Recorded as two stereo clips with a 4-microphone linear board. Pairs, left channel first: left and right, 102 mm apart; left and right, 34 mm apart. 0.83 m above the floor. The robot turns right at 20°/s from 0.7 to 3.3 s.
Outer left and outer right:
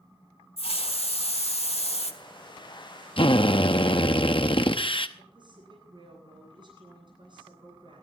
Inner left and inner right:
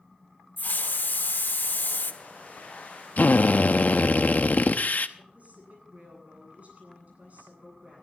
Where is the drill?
60° left (ahead or behind), 0.9 m; by 5.1 s 55° left (ahead or behind), 0.9 m.